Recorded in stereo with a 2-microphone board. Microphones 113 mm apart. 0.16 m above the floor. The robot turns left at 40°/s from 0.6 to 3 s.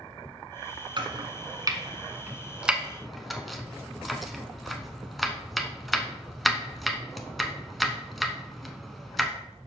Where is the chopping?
45° right (ahead or behind), 0.7 m; by 9.3 s centre (ahead or behind), 0.7 m.